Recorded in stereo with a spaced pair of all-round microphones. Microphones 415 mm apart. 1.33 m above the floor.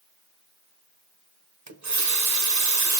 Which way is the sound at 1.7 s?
45° right (ahead or behind).